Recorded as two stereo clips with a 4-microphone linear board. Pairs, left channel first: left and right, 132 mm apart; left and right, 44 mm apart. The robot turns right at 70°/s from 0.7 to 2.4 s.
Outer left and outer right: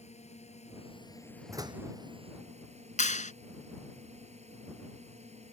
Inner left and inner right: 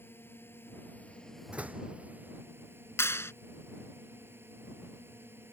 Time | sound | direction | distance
0.0 | a drone | 120° left | ?
1.5 | a door slam | 20° right (ahead or behind) | ?
3.0 | a clap | 65° left (ahead or behind) | ?